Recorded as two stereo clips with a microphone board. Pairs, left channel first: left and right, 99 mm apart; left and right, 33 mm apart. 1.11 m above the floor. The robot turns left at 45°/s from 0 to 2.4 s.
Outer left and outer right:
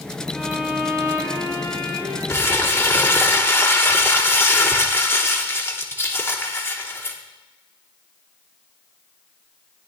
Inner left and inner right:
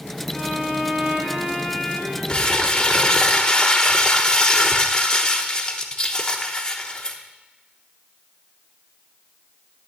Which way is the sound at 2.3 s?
30° left (ahead or behind).